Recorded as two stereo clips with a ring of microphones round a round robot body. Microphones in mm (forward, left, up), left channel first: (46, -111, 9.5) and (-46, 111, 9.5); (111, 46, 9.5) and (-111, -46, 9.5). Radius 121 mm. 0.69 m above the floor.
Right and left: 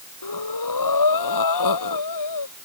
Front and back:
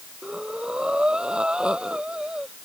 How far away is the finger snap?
I don't hear a finger snap.